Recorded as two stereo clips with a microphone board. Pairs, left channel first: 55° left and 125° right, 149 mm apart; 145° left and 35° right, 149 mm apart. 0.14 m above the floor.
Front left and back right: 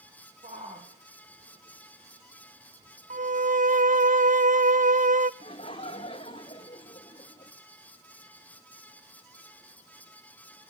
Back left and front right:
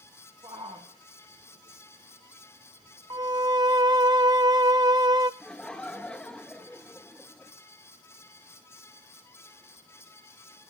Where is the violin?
95° right, 1.0 m.